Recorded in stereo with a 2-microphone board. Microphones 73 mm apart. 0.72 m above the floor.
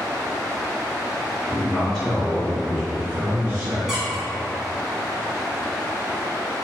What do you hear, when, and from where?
1.5 s a man speaking: 15° left (ahead or behind), 1.1 m; by 3.8 s 25° right (ahead or behind), 0.8 m
3.9 s a squeak: 5° right (ahead or behind), 0.8 m